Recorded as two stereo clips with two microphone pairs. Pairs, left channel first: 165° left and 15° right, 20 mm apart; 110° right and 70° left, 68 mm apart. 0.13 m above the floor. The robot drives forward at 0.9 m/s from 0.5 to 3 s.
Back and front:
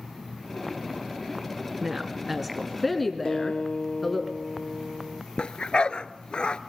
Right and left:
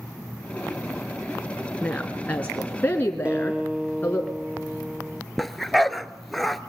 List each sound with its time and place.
1.8 s a woman speaking: 50° right, 2.0 m; by 4.2 s 110° right, 1.8 m
3.2 s a guitar: 140° left, 0.9 m
5.4 s a dog barking: 165° left, 0.7 m